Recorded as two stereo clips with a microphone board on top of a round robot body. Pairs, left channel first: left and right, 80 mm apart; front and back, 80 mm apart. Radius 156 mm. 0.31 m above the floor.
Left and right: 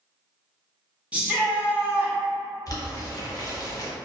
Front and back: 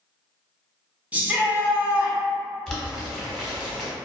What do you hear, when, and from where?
1.1 s a shout: 140° right, 1.0 m
2.7 s boiling: 85° left, 1.3 m